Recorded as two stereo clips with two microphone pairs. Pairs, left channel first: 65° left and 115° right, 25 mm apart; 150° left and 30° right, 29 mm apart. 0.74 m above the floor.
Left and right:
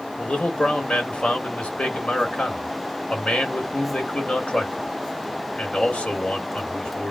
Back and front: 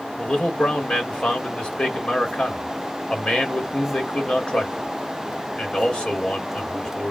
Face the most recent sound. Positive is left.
turn(degrees=100)